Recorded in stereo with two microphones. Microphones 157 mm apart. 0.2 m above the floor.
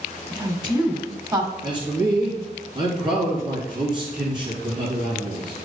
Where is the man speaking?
30° right (ahead or behind), 3 m.